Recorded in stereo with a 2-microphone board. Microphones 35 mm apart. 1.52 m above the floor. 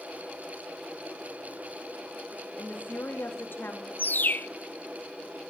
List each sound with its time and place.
2.6 s a woman speaking: 65° left (ahead or behind), 3 m; by 3.9 s 80° left, 3 m
4.0 s a bird: 65° left (ahead or behind), 0.6 m